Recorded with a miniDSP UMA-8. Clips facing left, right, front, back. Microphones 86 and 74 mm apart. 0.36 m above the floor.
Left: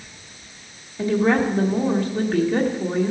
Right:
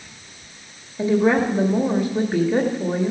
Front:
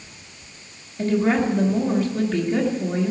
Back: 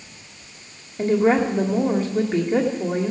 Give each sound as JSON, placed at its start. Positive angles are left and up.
{"t": 1.0, "sound": "a woman speaking", "azimuth_deg": -155, "distance_m": 1.1}